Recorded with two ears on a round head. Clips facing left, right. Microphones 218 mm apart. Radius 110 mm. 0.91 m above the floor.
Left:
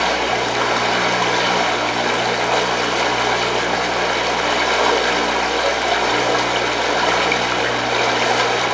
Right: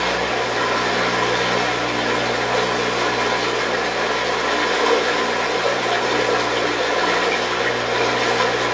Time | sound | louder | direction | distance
0.0 | running water | left 1 dB | 65° left (ahead or behind) | 3 m